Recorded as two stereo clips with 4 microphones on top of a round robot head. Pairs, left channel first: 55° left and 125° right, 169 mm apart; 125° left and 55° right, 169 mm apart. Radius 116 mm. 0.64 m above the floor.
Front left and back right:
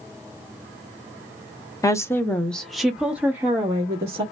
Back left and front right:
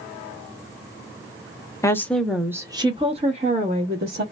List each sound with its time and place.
1.8 s a woman speaking: 90° left, 0.8 m; by 4.2 s 55° right, 1.3 m